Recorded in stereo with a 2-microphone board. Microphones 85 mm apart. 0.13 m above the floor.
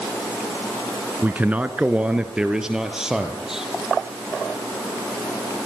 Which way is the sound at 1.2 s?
20° right (ahead or behind).